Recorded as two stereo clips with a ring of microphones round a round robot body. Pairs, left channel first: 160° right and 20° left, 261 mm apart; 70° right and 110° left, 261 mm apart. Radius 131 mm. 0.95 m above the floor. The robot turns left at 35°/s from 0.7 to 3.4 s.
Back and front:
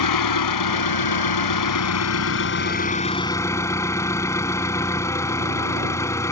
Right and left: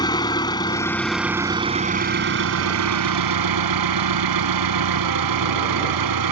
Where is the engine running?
145° right; by 6.3 s 125° left.